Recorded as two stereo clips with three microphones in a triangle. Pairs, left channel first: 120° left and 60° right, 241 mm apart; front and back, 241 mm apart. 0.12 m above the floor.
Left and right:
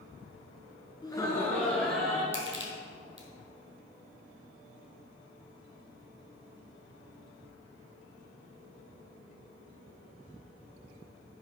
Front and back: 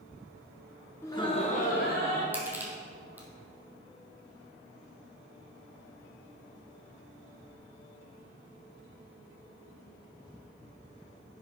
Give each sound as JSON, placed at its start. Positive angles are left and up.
{"t": 1.0, "sound": "laughter", "azimuth_deg": 70, "distance_m": 1.2}
{"t": 2.3, "sound": "crushing", "azimuth_deg": -100, "distance_m": 2.0}